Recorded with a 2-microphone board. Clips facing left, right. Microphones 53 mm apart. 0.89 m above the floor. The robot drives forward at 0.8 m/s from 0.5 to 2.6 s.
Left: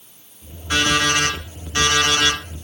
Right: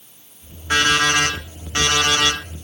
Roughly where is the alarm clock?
Right.